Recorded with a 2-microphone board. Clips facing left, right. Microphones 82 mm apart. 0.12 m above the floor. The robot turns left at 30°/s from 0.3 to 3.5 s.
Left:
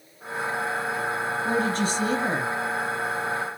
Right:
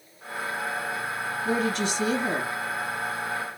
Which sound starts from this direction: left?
A woman speaking, at 1.4 s.